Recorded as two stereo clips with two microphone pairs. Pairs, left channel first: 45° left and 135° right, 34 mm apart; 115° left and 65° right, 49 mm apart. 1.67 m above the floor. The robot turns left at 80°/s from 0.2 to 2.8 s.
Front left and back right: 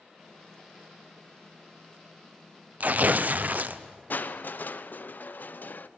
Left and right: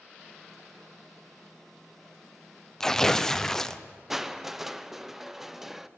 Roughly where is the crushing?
Ahead.